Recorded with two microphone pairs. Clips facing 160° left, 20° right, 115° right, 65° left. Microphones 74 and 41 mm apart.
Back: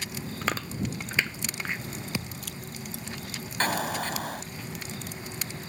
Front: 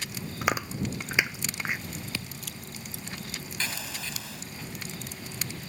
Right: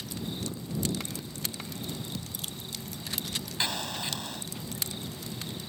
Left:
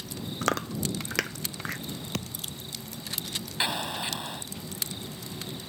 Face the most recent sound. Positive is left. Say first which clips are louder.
# back 10 dB, left 3 dB
turn(degrees=135)